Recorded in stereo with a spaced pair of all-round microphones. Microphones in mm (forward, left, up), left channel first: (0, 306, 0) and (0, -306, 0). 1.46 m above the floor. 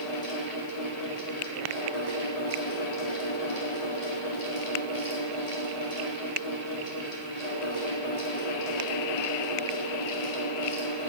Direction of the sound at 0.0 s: 80° left.